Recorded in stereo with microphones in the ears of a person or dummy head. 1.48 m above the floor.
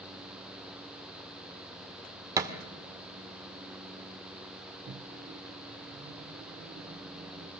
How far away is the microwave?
About 0.6 m.